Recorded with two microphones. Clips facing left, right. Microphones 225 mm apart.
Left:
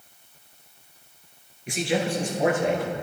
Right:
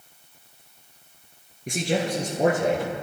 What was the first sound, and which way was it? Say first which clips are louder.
A man speaking: even; 45° right (ahead or behind).